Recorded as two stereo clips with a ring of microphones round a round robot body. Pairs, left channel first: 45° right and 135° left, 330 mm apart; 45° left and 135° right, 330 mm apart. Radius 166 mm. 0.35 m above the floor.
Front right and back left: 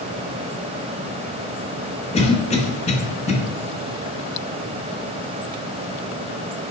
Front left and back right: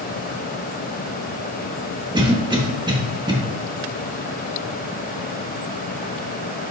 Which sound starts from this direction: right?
A cough, at 2.1 s.